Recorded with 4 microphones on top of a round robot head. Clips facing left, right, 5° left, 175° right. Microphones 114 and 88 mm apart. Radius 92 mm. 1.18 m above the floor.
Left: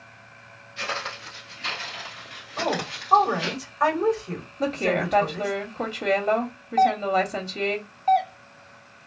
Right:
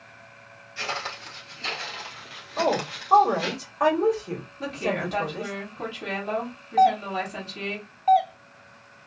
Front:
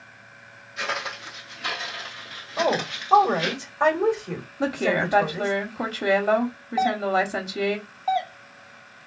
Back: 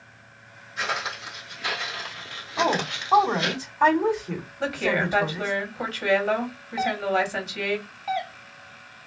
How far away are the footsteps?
About 1.7 m.